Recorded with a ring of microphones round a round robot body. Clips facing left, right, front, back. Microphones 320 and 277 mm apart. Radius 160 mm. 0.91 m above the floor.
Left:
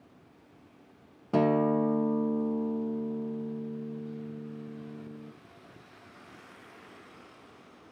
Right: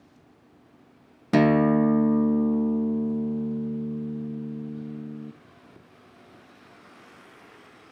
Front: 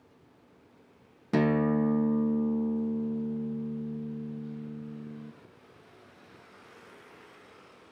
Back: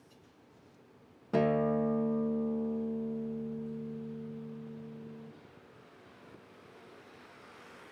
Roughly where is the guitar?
Ahead right.